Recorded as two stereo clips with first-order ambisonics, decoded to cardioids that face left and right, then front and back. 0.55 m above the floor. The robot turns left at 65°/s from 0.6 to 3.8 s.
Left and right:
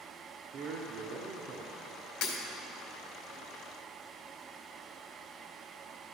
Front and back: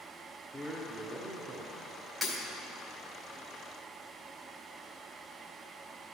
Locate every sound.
0.5 s a man speaking: 85° right, 0.9 m; by 2.1 s straight behind, 0.9 m
2.2 s breaking glass: 95° left, 2 m; by 2.4 s 85° left, 2 m